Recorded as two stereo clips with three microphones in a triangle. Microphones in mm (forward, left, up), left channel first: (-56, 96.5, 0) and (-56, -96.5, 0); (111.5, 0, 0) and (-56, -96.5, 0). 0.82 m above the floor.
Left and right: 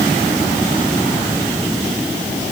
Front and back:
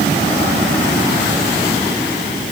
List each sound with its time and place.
Only background noise.